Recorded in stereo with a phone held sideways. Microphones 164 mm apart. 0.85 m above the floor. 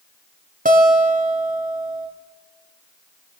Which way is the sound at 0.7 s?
55° right (ahead or behind).